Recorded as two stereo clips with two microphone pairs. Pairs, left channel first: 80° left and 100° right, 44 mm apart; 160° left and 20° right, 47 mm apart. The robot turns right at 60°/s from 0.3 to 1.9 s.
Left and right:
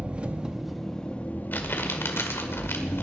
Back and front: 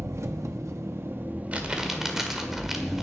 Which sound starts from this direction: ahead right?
An engine running, at 0.0 s.